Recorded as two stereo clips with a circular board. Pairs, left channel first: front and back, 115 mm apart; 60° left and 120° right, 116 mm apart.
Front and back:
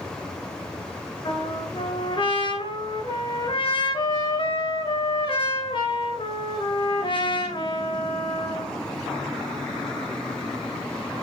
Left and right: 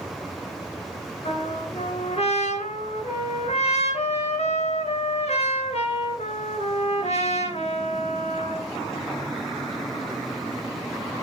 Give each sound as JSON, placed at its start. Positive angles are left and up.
{"t": 1.2, "sound": "a trumpet", "azimuth_deg": 40, "distance_m": 4.0}